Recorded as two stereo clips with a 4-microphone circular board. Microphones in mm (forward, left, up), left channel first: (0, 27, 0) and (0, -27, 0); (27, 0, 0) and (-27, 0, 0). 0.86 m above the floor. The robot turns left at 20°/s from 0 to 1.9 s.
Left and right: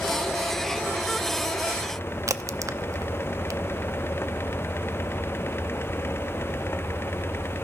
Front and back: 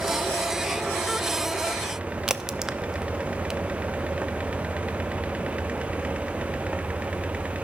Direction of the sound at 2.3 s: 100° right.